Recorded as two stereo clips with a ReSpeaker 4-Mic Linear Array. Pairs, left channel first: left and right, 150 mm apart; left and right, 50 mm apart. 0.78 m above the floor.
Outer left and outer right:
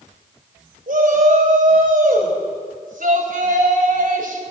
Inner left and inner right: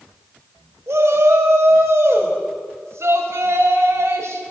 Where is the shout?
75° right (ahead or behind), 5 m.